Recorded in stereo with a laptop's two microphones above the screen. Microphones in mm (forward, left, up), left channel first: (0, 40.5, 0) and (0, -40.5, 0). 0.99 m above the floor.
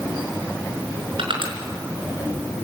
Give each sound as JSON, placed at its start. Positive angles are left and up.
{"t": 1.2, "sound": "crushing", "side_deg": -80, "distance_m": 4.5}